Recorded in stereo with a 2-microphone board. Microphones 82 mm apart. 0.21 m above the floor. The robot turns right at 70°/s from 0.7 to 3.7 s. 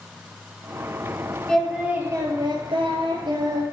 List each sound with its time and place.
1.5 s singing: 165° left, 1.3 m; by 3.6 s 45° right, 1.3 m